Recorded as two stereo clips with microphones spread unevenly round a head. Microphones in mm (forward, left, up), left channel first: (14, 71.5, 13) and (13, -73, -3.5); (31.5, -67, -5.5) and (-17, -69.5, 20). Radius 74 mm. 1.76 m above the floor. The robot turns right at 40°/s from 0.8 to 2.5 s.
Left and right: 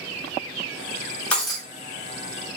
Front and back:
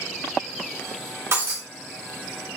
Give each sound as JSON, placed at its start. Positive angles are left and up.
{"t": 1.3, "sound": "breaking glass", "azimuth_deg": 170, "distance_m": 3.0}